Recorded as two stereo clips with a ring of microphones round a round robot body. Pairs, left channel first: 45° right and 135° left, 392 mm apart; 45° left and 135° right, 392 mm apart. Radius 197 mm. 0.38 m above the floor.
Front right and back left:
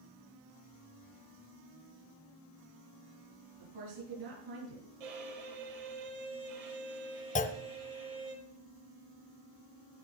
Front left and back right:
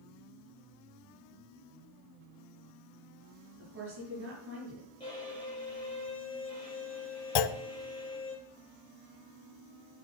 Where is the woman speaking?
165° left, 6 m.